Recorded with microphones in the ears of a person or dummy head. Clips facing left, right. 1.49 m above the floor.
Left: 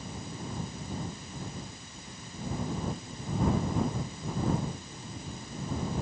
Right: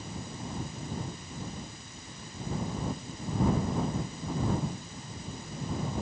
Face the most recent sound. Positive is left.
No sound to turn to.